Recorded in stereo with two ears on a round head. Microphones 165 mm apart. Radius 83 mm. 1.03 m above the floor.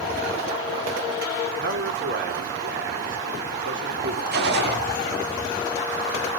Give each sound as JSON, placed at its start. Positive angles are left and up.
{"t": 1.5, "sound": "a man speaking", "side_deg": -65, "distance_m": 4.0}
{"t": 4.3, "sound": "a gunshot", "side_deg": -60, "distance_m": 1.5}